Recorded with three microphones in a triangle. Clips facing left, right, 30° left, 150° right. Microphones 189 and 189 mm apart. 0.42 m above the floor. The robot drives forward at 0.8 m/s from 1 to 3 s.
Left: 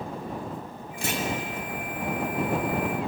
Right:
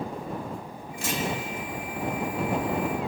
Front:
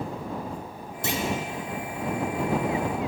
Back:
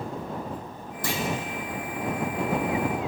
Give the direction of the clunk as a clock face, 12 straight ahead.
9 o'clock.